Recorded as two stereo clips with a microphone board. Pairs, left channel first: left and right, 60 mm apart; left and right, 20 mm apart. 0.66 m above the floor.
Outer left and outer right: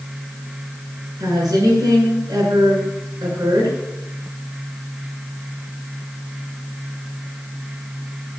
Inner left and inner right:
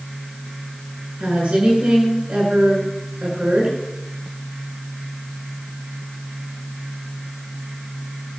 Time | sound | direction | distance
1.2 | a woman speaking | 85° right | 7.5 m